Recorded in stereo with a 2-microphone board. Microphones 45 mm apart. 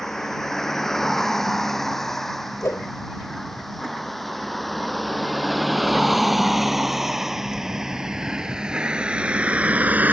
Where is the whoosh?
80° left.